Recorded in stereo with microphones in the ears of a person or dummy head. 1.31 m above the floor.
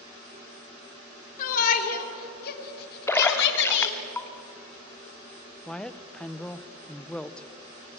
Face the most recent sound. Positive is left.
turn(degrees=5)  # may be behind; listen again after turning